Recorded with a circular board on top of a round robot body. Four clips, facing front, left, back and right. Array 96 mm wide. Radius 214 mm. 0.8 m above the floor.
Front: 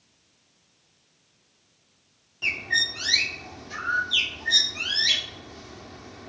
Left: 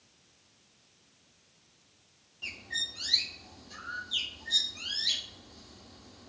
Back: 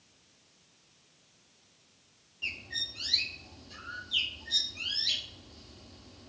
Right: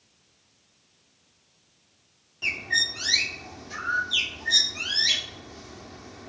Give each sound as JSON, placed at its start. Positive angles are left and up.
{"t": 2.4, "sound": "a bird", "azimuth_deg": -35}